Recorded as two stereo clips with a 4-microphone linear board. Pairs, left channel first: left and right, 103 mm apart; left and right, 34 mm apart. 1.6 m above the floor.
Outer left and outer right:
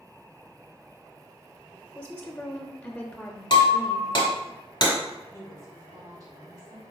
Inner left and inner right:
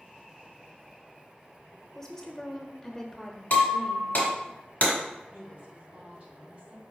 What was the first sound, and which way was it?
A woman speaking, 10° left (ahead or behind).